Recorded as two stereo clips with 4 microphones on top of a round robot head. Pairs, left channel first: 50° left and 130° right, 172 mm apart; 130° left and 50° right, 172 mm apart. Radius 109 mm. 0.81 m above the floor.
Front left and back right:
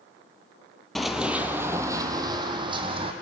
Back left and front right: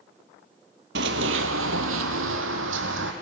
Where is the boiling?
I don't hear boiling.